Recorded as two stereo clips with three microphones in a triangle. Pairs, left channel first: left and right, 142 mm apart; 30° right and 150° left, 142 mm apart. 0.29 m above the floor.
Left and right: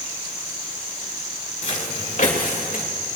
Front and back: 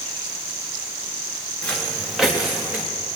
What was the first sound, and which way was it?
Footsteps, 50° left.